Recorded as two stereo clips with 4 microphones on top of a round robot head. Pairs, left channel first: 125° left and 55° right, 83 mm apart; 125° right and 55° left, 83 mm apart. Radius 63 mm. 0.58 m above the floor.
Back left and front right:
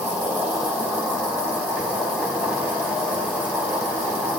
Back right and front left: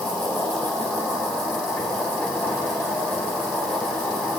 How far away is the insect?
About 1.7 m.